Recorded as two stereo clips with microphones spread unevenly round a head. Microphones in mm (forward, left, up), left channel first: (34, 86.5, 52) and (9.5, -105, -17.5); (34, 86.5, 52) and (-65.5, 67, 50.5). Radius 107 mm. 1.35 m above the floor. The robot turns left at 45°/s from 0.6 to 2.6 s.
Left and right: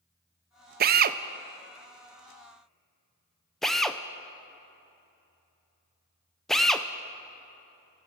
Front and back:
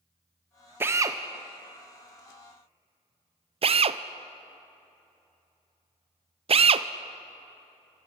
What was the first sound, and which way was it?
A drill, 100° right.